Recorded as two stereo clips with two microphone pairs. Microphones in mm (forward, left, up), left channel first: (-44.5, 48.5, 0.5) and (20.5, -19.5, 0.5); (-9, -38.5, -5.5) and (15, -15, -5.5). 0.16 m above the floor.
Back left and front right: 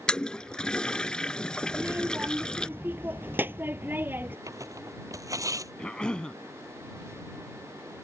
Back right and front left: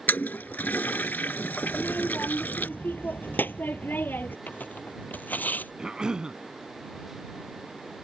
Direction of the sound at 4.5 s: 100° right.